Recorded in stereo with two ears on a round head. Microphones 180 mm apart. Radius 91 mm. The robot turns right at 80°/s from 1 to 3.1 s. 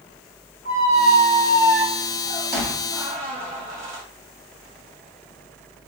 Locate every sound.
0.7 s a squeak: 55° left (ahead or behind), 1.8 m; by 4.0 s 45° right (ahead or behind), 1.8 m